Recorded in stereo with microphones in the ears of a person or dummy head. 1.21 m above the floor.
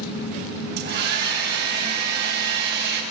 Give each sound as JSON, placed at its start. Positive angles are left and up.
{"t": 0.8, "sound": "a hair dryer", "side_deg": -55, "distance_m": 6.5}